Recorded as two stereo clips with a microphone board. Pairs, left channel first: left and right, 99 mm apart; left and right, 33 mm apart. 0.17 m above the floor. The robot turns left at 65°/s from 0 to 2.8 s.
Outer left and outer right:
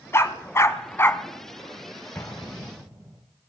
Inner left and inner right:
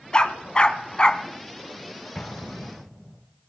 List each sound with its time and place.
0.1 s a dog barking: 25° left (ahead or behind), 0.6 m; by 1.2 s 20° left (ahead or behind), 0.6 m
2.1 s an explosion: 15° left, 1.6 m; by 3.2 s 25° right, 1.6 m